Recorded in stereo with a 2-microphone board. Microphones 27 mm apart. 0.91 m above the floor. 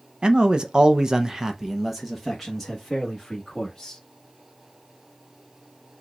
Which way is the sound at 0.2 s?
30° right (ahead or behind).